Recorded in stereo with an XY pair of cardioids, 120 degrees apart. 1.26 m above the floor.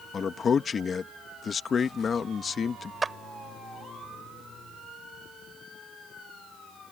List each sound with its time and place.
0.1 s a man speaking: 40° left
3.0 s a clap: 20° right